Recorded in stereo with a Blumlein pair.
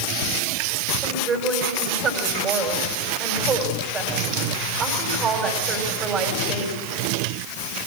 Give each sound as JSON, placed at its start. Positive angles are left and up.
{"t": 1.0, "sound": "a woman speaking", "azimuth_deg": -20, "distance_m": 5.0}